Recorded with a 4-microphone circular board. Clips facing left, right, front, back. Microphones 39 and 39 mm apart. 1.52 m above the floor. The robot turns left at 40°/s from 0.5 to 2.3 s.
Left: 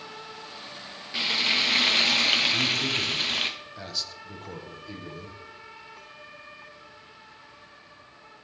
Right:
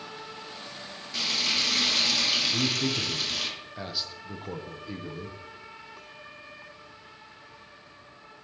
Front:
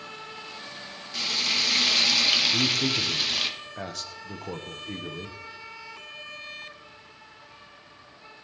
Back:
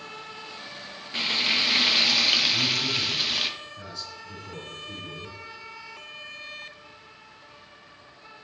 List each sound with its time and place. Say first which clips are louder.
1.1 s frying: left 3 dB, back 3 dB; 145° left, 0.9 m; by 3.5 s 100° left, 0.9 m
2.5 s a man speaking: left 2 dB, front 1 dB; 10° right, 0.9 m